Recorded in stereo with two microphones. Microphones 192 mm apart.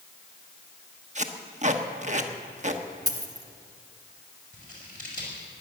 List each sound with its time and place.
1.1 s tape being pulled: 40° right (ahead or behind), 1.0 m
3.1 s a dropped coin: 20° right (ahead or behind), 1.1 m
4.5 s scissors: 45° left (ahead or behind), 5 m